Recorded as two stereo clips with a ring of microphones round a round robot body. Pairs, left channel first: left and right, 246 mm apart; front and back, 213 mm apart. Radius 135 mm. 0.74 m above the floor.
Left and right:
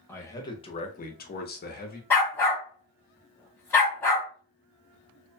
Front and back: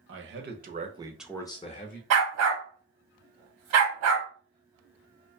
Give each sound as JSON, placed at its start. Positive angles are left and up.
{"t": 0.1, "sound": "a man speaking", "azimuth_deg": 170, "distance_m": 0.9}
{"t": 2.1, "sound": "a dog barking", "azimuth_deg": 170, "distance_m": 0.9}